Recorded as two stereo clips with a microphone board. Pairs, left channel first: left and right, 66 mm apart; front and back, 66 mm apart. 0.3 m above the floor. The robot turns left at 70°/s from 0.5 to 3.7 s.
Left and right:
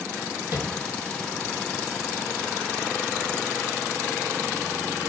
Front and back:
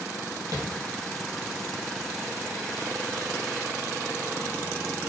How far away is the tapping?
About 1.0 m.